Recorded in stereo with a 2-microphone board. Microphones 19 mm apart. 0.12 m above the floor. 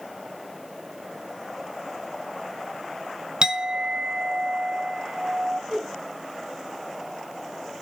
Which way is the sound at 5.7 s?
15° left (ahead or behind).